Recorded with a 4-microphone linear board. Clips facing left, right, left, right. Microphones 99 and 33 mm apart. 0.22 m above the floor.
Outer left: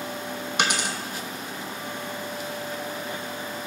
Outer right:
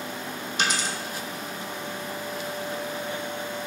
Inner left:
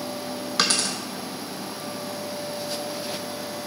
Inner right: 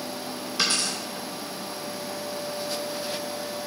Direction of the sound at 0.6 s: 65° left (ahead or behind).